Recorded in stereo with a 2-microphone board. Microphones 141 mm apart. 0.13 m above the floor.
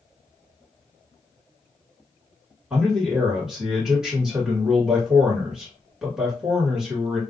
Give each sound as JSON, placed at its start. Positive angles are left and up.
{"t": 2.7, "sound": "a man speaking", "side_deg": -5, "distance_m": 1.5}